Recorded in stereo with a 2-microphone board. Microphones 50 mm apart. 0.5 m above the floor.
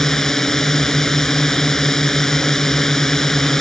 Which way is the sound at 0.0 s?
10° left (ahead or behind).